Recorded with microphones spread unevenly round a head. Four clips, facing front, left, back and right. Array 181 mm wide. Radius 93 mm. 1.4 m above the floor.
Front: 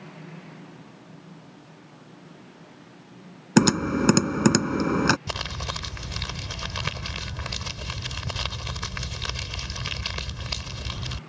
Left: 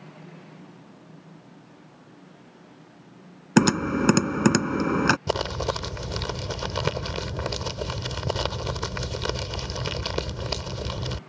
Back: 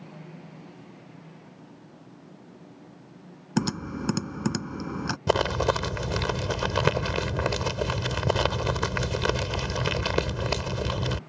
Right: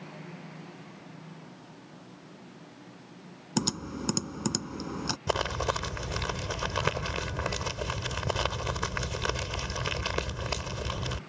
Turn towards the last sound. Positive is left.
turn(degrees=160)